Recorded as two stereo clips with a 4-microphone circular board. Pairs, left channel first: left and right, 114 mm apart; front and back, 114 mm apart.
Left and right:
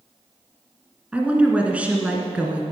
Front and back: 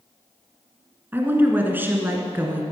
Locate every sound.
1.1 s a woman speaking: 145° right, 1.7 m